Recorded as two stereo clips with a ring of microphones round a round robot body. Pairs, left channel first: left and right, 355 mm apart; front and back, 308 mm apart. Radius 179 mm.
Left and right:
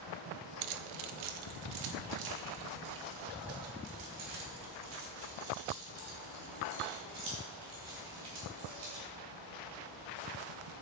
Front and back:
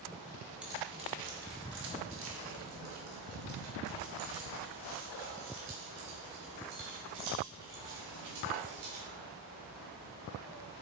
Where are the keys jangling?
95° right, 0.6 m; by 9.0 s 135° right, 5.5 m.